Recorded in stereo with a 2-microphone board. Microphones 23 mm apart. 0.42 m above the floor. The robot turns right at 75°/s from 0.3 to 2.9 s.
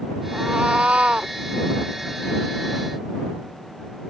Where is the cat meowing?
130° right; by 1.3 s 55° right.